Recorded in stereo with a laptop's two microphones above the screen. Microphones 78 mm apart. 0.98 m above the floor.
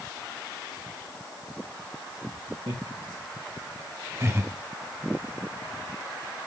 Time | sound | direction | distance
2.7 | laughter | 65° right (ahead or behind) | 2.5 m